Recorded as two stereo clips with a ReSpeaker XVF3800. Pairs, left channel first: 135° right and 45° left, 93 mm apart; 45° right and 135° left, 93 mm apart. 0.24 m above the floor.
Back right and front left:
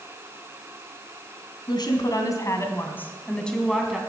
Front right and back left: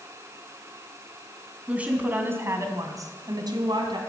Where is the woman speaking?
150° right, 2.5 m; by 4.0 s 135° left, 2.5 m.